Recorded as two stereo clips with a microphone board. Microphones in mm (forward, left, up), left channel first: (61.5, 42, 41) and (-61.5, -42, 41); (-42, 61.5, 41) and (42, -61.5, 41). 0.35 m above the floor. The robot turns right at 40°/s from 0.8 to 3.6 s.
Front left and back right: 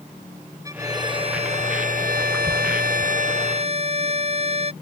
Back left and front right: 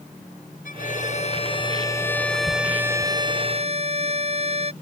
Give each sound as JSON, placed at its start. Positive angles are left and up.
{"t": 0.7, "sound": "a violin", "azimuth_deg": 145}